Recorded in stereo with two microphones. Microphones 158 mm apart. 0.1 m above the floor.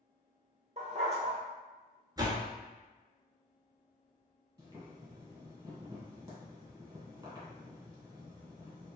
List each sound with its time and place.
0.8 s a dog barking: 45° right (ahead or behind), 0.8 m
2.2 s a door slam: 25° right (ahead or behind), 0.8 m
4.6 s boiling: 20° right (ahead or behind), 1.4 m